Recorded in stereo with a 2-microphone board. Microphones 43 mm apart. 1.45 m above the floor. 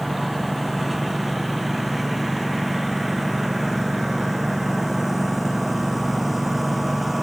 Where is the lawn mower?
Centre (ahead or behind); by 7.2 s 5° right (ahead or behind).